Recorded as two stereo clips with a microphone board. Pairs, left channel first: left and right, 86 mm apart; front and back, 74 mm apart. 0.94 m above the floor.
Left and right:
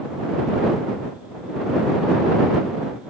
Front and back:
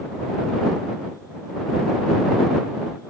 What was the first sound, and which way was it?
Only background noise.